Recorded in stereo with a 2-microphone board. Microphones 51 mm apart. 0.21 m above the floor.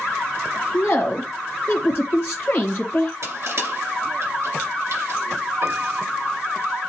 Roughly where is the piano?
Right.